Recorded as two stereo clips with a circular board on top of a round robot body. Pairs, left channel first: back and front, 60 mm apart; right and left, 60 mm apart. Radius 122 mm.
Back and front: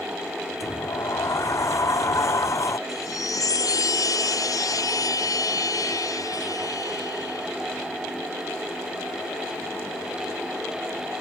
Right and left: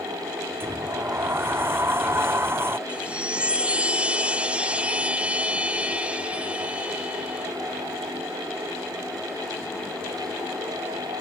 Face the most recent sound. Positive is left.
turn(degrees=165)